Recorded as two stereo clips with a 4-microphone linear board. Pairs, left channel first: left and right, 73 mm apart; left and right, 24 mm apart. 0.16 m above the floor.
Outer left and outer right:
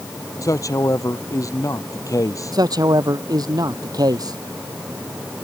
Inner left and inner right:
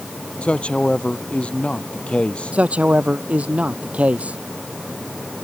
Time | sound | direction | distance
0.4 | a man speaking | 50° left (ahead or behind) | ?
2.5 | a man speaking | 65° right (ahead or behind) | ?